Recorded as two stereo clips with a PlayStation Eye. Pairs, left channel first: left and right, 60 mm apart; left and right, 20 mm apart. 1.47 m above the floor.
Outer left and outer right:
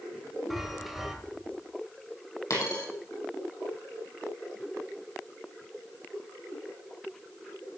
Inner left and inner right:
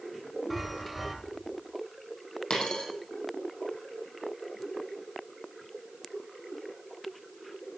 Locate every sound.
0.5 s a chime: centre (ahead or behind), 2.5 m
2.5 s a dropped coin: 65° left (ahead or behind), 4.5 m